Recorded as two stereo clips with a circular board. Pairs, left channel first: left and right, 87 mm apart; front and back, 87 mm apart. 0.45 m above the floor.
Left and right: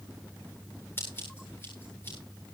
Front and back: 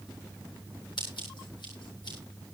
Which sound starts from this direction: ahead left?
Scissors, at 1.0 s.